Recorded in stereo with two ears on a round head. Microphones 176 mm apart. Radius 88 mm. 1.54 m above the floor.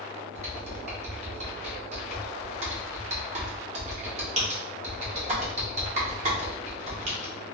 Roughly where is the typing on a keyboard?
Right.